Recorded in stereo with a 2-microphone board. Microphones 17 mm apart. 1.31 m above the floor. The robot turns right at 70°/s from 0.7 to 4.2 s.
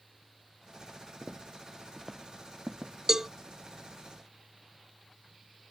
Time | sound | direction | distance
1.2 | footsteps | 50° left (ahead or behind) | ?
3.1 | a cowbell | 30° right (ahead or behind) | ?